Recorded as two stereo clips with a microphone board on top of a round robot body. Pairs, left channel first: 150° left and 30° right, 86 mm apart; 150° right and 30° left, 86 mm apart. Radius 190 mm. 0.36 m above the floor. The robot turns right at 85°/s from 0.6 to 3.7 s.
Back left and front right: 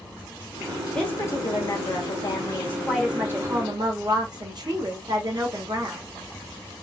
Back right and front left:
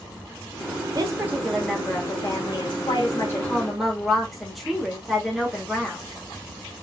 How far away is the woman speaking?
About 2 m.